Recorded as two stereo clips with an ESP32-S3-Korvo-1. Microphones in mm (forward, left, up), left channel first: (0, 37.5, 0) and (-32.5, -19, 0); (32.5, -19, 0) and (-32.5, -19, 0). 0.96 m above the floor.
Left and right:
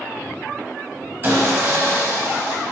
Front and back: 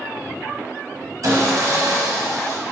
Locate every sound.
1.2 s sawing: 175° right, 1.5 m